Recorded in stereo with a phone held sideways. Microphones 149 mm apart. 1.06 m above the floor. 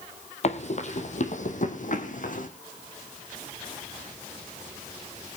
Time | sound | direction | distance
0.4 | running footsteps | 45° left (ahead or behind) | 2.0 m